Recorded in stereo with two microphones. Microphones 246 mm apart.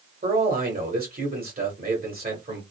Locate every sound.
0.2 s a man speaking: 40° right (ahead or behind), 1.3 m